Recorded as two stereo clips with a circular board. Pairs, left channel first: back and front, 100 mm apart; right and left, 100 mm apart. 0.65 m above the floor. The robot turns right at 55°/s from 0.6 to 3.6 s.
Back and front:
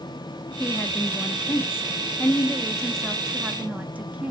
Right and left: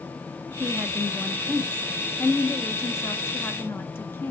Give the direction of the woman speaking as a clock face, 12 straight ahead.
7 o'clock.